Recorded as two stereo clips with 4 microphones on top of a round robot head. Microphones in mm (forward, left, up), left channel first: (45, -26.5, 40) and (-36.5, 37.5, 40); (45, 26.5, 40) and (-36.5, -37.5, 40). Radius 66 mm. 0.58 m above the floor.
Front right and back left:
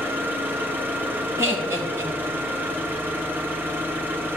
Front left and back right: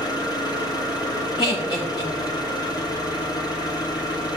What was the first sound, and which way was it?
An engine running, 75° left.